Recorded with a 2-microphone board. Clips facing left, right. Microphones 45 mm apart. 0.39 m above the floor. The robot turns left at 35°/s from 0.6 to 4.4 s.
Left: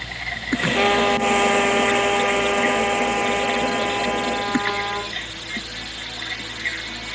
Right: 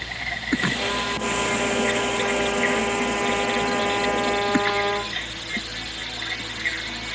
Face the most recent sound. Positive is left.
turn(degrees=-25)